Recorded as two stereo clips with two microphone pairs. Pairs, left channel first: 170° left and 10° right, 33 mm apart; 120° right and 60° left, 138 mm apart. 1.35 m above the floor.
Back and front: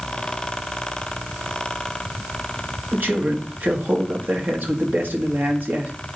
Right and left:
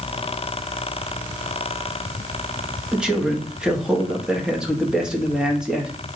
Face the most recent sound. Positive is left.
turn(degrees=-25)